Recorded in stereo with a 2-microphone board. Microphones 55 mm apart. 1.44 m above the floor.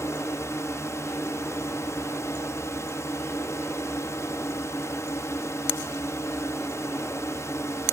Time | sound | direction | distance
0.0 | a drone | 60° left (ahead or behind) | ?